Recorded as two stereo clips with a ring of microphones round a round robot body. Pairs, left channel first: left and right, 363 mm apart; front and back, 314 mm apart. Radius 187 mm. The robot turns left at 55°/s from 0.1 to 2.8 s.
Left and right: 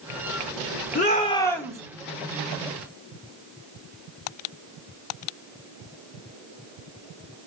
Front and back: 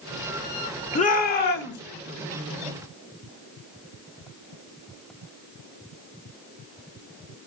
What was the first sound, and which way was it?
A shout, 45° left.